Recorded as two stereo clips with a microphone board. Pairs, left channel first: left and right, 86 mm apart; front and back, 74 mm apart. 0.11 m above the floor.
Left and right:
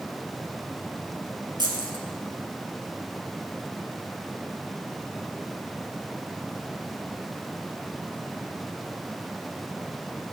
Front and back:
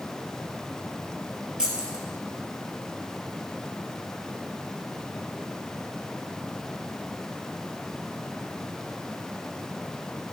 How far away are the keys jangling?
About 1.9 m.